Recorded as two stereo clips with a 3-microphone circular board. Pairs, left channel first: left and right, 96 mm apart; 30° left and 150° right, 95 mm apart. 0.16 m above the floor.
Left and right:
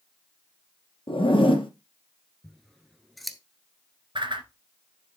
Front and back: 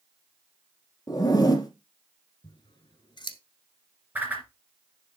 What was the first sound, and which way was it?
A zipper, 80° left.